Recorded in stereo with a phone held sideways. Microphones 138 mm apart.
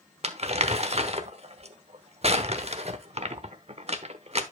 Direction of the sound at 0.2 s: 50° right (ahead or behind).